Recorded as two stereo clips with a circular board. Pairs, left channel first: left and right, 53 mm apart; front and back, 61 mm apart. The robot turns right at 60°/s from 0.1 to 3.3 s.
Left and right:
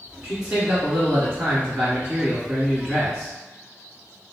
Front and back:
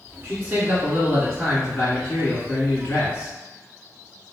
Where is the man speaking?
175° right, 1.6 m; by 3.3 s 10° left, 1.6 m.